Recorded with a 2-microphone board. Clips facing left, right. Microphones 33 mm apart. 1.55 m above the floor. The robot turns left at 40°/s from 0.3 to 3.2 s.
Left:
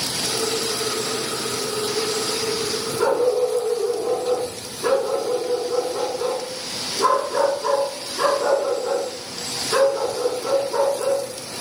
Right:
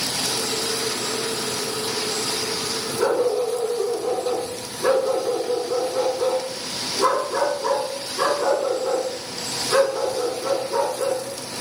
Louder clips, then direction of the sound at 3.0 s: Left 2 dB; centre (ahead or behind).